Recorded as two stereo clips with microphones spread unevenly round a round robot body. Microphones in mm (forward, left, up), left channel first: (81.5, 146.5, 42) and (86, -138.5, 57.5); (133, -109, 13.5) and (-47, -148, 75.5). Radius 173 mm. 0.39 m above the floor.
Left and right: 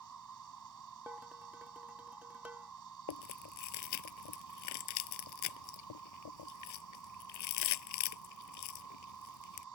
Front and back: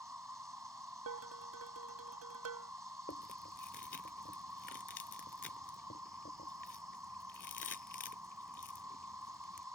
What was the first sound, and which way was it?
An insect, 85° right.